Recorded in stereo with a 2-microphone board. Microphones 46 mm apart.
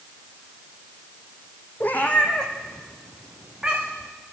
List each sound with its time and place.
1.8 s a cat meowing: 45° left (ahead or behind), 1.5 m; by 4.1 s 20° right (ahead or behind), 3.5 m